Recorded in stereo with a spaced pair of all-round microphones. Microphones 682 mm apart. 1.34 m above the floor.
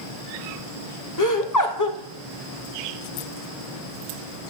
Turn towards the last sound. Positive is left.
turn(degrees=30)  # may be behind; listen again after turning